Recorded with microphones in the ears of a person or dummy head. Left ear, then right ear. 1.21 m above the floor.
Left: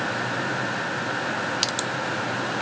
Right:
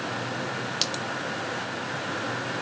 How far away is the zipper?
I don't hear a zipper.